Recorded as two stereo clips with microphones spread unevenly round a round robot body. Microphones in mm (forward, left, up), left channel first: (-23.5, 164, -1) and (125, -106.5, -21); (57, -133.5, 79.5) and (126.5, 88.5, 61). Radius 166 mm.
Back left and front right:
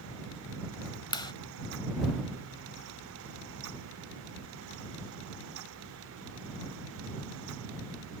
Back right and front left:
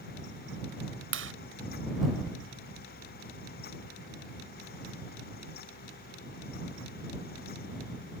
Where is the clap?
45° left.